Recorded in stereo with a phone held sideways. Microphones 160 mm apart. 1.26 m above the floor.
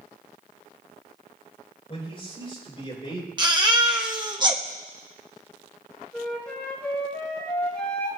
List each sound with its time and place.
1.9 s a man speaking: 35° left (ahead or behind), 6.5 m
3.4 s a baby crying: 30° right (ahead or behind), 1.3 m
6.1 s a flute: 5° left (ahead or behind), 4.5 m